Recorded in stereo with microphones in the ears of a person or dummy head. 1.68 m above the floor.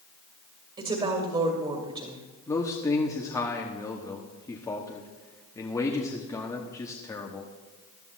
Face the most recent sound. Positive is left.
turn(degrees=15)  # may be behind; listen again after turning